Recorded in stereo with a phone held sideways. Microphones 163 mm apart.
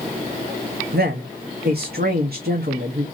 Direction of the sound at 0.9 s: 75° right (ahead or behind).